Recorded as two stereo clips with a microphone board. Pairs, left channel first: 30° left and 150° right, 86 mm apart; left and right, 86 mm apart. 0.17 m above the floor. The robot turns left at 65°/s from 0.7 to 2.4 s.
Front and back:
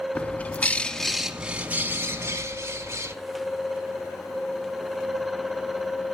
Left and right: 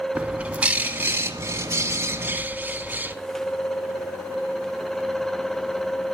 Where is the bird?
30° right, 0.9 m; by 3.1 s 140° right, 0.9 m.